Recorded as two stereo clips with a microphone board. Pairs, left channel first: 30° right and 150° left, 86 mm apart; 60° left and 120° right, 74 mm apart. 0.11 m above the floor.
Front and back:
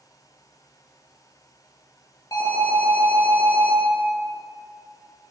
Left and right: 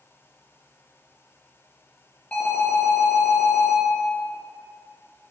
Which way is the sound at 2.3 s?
5° right.